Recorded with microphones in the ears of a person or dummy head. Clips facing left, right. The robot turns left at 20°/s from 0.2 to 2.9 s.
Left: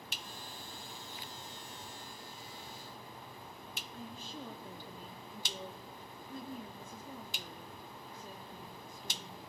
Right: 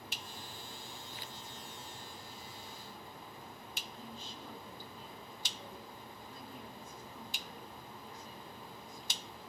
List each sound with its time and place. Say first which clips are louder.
3.9 s a woman speaking: left 6 dB; 45° left (ahead or behind), 2.5 m